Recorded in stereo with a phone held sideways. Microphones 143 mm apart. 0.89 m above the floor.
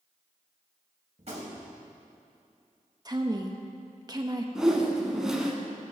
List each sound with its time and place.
1.2 s a gunshot: 50° right (ahead or behind), 3 m
3.0 s a woman speaking: 30° right (ahead or behind), 1.1 m
4.5 s a whoosh: 5° right (ahead or behind), 1.7 m